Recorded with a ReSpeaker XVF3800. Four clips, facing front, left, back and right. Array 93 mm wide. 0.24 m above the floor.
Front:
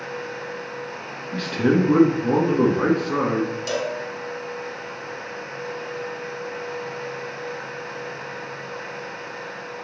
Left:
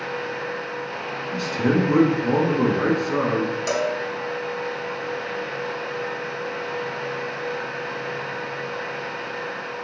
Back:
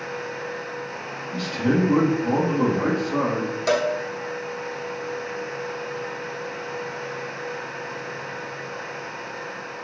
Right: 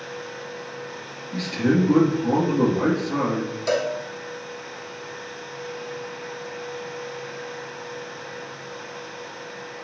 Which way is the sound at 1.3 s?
20° left.